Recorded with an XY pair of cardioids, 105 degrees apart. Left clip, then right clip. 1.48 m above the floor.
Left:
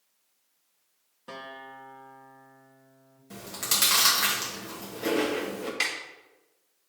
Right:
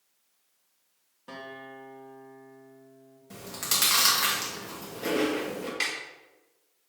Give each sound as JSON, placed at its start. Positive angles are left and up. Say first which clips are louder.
{"t": 1.3, "sound": "a guitar", "louder": "left 1 dB", "azimuth_deg": 15, "distance_m": 1.9}
{"t": 3.3, "sound": "chewing", "louder": "left 1 dB", "azimuth_deg": 0, "distance_m": 2.5}
{"t": 5.8, "sound": "a snare drum", "louder": "left 2 dB", "azimuth_deg": 15, "distance_m": 3.0}